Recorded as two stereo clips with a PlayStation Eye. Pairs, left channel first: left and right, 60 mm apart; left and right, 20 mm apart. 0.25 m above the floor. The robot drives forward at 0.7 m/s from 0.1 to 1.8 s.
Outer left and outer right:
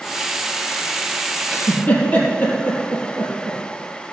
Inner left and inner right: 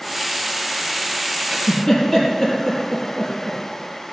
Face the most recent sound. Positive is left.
turn(degrees=30)  # may be behind; listen again after turning